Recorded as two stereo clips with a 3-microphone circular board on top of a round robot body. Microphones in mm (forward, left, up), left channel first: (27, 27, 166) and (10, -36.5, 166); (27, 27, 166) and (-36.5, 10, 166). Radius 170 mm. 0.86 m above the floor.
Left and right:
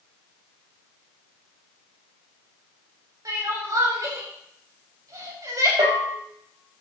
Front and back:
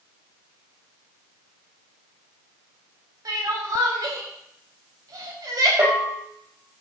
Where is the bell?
120° right, 6.5 m.